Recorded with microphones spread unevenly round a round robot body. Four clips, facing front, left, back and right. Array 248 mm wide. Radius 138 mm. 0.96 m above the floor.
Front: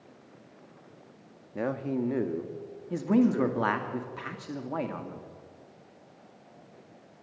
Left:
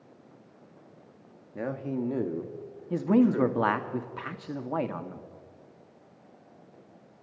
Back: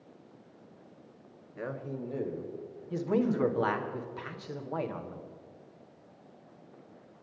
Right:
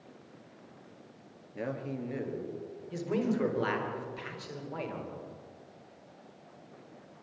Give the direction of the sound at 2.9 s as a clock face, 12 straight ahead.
10 o'clock.